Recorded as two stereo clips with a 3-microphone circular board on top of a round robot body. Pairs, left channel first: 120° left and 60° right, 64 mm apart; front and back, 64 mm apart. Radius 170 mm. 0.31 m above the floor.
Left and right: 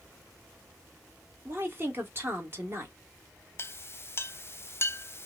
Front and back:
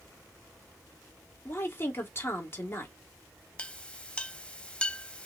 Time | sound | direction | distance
1.4 | a woman speaking | 30° right | 1.7 m
3.6 | a clink | 70° left | 0.7 m